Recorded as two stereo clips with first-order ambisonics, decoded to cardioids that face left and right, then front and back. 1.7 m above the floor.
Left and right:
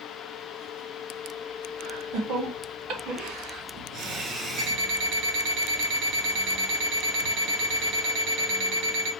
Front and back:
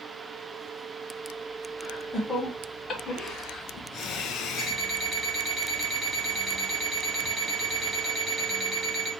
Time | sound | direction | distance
1.8 | laughter | 75° right | 2 m
4.6 | an alarm clock | 110° right | 1.9 m